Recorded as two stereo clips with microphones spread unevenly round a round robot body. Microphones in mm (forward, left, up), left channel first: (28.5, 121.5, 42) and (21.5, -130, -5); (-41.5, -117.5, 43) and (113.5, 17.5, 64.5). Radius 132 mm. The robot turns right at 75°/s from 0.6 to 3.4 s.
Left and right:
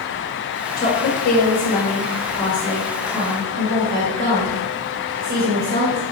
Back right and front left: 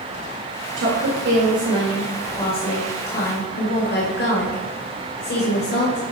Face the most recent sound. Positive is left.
turn(degrees=-130)